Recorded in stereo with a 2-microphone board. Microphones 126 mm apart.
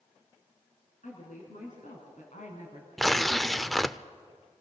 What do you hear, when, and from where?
1.0 s a woman speaking: 80° left, 4.5 m; by 2.9 s 70° left (ahead or behind), 3 m
3.0 s tearing paper: centre (ahead or behind), 0.5 m